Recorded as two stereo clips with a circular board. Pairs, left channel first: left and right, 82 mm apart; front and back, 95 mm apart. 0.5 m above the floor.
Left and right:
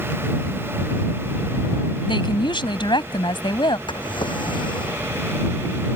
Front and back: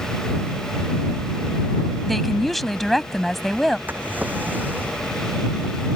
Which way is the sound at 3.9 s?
110° left.